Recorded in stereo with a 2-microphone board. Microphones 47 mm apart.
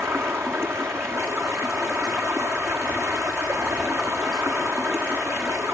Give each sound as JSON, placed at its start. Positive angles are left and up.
{"t": 0.0, "sound": "running water", "side_deg": -65, "distance_m": 1.4}